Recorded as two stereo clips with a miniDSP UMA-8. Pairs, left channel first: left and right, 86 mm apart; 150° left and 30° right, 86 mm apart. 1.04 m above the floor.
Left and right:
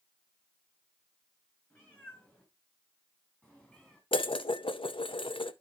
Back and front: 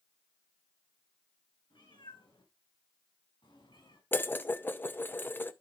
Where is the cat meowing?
155° left, 5.5 m; by 4.0 s 165° left, 3.5 m.